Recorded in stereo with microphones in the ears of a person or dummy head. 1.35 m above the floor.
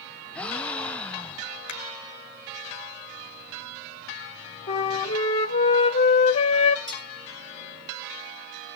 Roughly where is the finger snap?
Left.